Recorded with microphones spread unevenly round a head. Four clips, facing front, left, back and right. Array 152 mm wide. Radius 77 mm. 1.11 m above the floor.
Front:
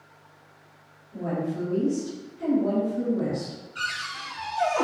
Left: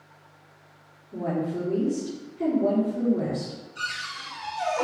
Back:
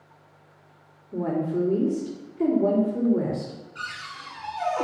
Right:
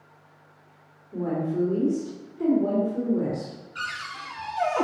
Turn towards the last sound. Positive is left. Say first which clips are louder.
# right 1 dB, front 6 dB
turn(degrees=-65)